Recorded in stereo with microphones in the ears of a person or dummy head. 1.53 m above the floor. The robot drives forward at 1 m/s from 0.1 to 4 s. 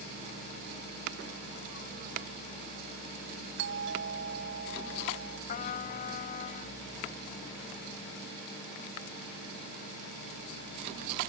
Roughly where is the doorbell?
Right.